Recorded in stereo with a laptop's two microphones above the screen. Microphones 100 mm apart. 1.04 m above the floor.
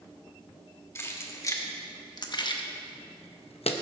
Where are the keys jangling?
25° left (ahead or behind), 1.6 m; by 3.7 s 80° left, 0.7 m.